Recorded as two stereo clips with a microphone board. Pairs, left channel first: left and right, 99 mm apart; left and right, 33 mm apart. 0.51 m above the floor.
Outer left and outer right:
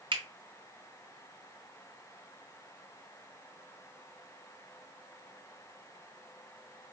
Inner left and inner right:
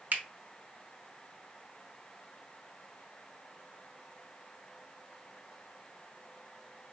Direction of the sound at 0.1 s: 60° right (ahead or behind).